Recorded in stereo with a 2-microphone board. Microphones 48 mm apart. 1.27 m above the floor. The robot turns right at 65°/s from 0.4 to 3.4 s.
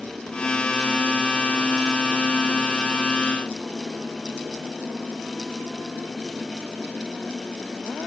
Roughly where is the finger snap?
No finger snap in this recording.